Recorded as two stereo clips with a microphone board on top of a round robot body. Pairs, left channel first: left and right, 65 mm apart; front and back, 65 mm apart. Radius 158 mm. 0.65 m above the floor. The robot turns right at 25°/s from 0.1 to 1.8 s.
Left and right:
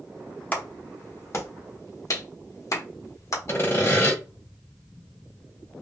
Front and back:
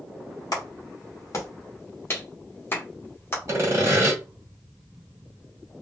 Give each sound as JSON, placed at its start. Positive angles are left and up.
{"t": 0.5, "sound": "a clap", "azimuth_deg": 25, "distance_m": 1.2}
{"t": 3.5, "sound": "sawing", "azimuth_deg": 135, "distance_m": 1.6}